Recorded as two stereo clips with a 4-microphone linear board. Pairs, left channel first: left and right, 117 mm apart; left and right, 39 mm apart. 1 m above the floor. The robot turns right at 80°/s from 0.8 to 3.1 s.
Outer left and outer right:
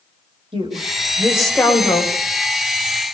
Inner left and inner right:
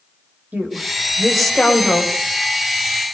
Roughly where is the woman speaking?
Ahead right.